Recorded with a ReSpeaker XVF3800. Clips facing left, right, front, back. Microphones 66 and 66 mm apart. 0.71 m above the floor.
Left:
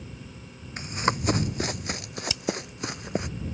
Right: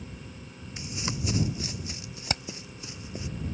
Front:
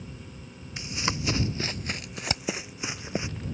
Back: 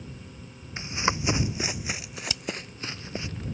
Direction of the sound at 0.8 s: 125° left.